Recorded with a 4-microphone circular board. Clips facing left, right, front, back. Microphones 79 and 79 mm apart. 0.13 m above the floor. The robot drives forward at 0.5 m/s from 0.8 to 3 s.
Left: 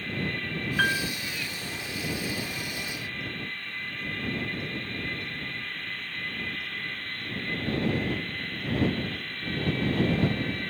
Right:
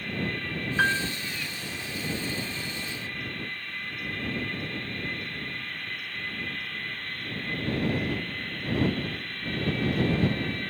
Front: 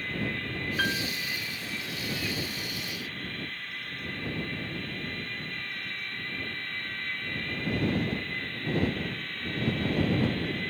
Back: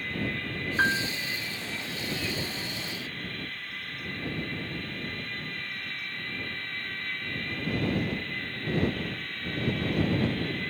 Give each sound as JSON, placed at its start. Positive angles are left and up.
{"t": 0.8, "sound": "a piano", "azimuth_deg": -160}